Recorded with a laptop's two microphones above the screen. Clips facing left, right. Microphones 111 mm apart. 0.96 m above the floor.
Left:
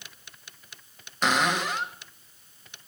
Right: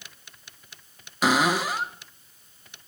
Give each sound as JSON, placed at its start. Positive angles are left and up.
{"t": 1.2, "sound": "a cupboard door", "side_deg": -5, "distance_m": 1.2}